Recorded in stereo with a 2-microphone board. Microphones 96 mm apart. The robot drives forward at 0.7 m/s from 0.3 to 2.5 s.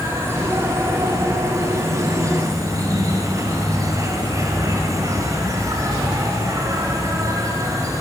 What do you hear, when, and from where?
0.0 s an insect: 25° right (ahead or behind), 6 m; by 8.0 s 35° right (ahead or behind), 5 m